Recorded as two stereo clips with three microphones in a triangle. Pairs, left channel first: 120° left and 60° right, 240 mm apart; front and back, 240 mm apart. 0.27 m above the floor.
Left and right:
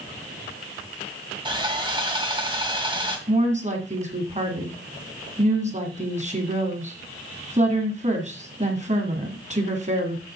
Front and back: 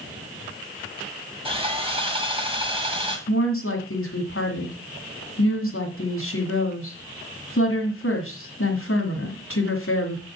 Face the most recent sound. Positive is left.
turn(degrees=-5)